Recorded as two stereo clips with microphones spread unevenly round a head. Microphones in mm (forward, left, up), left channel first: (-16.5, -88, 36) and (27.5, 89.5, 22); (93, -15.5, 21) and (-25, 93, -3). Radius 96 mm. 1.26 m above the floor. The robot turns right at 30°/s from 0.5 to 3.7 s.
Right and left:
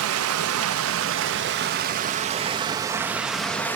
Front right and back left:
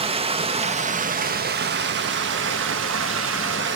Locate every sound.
0.0 s running water: 80° left, 1.0 m; by 3.8 s 175° left, 1.0 m